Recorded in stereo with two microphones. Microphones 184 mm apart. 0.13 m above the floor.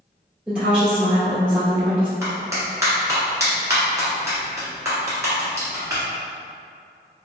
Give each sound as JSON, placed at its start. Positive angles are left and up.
{"t": 0.5, "sound": "a woman speaking", "side_deg": -5, "distance_m": 1.9}
{"t": 2.2, "sound": "a clap", "side_deg": -15, "distance_m": 1.1}